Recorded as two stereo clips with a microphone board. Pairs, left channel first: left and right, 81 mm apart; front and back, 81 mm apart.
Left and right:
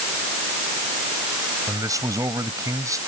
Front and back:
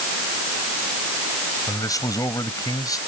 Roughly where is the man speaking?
Ahead right.